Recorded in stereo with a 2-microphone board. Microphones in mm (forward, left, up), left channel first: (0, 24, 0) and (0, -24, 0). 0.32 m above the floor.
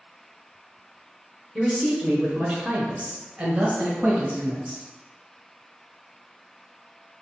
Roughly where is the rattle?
I don't hear a rattle.